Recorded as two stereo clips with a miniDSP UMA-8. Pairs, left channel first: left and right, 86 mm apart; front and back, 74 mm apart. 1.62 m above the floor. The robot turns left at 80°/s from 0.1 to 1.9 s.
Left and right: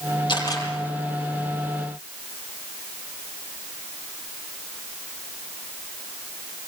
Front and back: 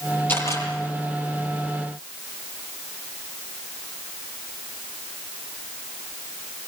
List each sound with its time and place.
0.3 s a camera shutter: 65° left, 8.5 m; by 0.7 s 35° left, 8.5 m